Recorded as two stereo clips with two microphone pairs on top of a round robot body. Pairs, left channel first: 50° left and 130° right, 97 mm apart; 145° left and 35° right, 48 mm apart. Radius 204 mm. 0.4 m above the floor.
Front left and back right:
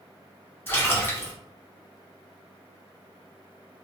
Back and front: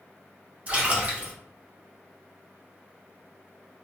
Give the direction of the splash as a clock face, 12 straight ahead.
12 o'clock.